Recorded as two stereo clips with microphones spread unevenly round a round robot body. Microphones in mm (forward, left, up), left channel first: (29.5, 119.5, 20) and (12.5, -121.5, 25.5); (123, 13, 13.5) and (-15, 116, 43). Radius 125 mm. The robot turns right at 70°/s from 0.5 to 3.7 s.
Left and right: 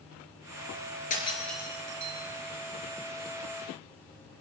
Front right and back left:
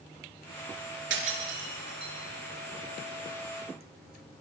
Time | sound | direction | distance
1.1 | breaking glass | 145° left | 4.5 m